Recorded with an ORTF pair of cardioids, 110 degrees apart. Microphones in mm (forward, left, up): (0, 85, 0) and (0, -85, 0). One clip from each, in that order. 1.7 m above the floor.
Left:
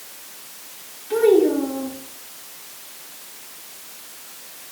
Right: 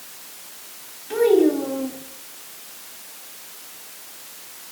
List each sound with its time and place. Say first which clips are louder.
1.1 s a child speaking: left 1 dB; 15° right, 2.5 m